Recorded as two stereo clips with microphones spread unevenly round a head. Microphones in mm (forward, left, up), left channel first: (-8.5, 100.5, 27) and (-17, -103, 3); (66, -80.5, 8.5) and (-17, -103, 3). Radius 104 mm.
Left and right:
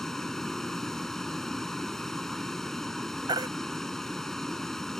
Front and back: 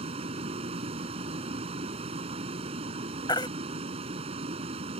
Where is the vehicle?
175° left.